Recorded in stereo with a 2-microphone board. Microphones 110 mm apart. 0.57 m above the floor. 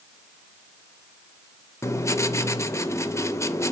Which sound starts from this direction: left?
Writing, at 1.8 s.